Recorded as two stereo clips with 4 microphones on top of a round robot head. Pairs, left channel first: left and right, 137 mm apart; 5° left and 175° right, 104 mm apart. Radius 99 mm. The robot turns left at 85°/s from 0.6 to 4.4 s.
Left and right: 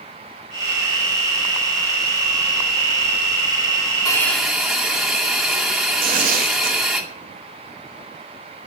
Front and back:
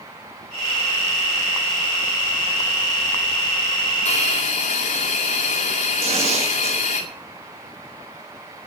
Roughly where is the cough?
I don't hear a cough.